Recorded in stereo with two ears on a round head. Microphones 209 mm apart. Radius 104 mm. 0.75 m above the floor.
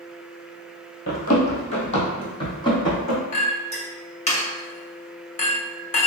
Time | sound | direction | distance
1.1 | running footsteps | 40° left (ahead or behind) | 1.2 m
3.3 | a clink | 30° left (ahead or behind) | 1.0 m